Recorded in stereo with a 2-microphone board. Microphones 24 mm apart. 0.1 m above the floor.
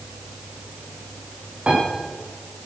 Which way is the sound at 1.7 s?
45° right (ahead or behind).